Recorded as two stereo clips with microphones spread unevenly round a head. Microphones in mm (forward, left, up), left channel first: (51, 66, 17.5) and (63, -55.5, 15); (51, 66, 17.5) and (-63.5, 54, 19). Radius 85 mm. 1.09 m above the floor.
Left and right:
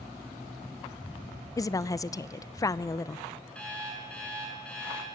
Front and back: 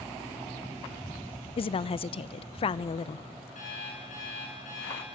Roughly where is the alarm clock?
Ahead.